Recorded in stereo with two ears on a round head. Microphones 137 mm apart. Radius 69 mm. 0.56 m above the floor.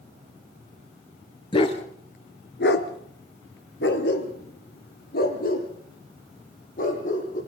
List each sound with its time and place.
1.5 s a dog barking: 30° left (ahead or behind), 2.5 m; by 7.4 s 50° left (ahead or behind), 7.5 m